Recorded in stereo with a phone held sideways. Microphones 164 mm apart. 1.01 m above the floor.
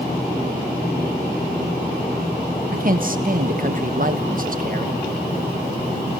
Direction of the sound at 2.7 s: 55° right (ahead or behind).